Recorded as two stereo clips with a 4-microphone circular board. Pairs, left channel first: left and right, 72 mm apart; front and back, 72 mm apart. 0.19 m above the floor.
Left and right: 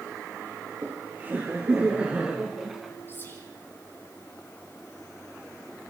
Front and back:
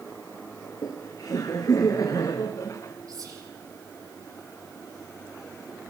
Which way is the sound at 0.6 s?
25° right.